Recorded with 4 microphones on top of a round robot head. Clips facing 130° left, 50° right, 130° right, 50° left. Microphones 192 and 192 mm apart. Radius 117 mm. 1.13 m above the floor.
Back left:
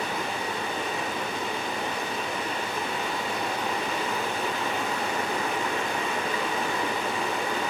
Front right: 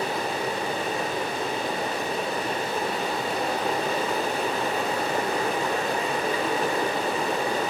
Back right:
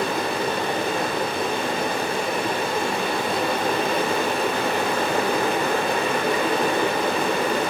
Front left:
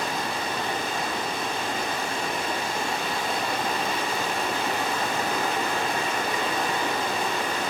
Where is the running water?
105° right, 1.1 m.